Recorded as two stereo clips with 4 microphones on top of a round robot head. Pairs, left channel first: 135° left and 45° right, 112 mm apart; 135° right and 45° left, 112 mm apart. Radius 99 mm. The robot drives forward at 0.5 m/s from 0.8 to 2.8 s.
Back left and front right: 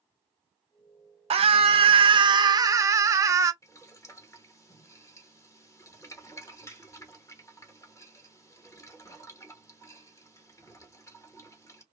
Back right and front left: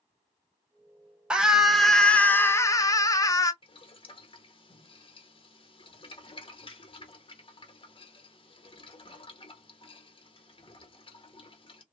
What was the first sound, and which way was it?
A scream, 40° right.